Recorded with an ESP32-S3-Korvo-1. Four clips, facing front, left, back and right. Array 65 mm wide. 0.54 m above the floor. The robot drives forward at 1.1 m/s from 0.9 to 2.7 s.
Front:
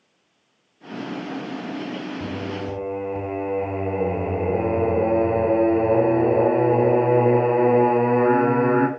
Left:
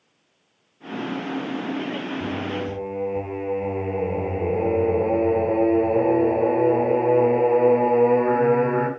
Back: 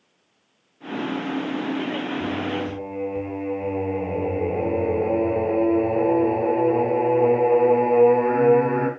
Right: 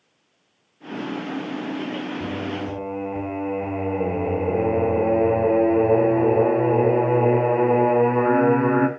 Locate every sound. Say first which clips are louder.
2.2 s singing: left 1 dB, back 3 dB; 45° right, 7.5 m; by 8.9 s 50° right, 7 m